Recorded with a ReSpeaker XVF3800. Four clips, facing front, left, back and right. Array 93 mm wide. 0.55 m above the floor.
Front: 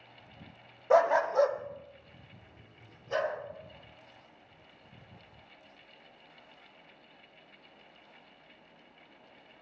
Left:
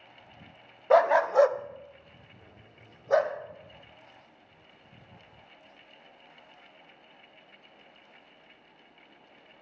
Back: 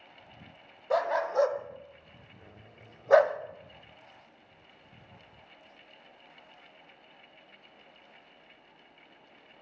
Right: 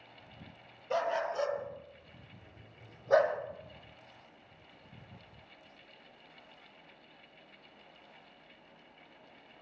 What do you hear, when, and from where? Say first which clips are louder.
0.9 s a dog barking: left 12 dB, front 4 dB; 70° left, 0.9 m; by 3.4 s straight behind, 1.3 m